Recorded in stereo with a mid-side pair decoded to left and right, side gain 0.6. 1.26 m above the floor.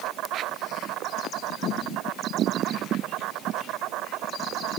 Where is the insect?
65° right.